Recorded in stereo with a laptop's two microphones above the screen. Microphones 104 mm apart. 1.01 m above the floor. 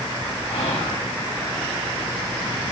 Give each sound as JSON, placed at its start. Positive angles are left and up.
{"t": 0.5, "sound": "whispering", "side_deg": 80, "distance_m": 6.0}